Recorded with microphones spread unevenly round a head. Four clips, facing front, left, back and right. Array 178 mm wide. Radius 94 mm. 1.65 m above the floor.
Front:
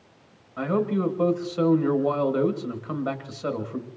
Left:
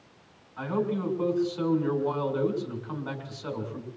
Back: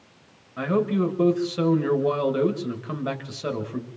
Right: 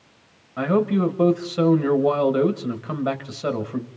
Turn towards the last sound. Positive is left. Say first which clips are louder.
# right 9 dB, back 1 dB
turn(degrees=-100)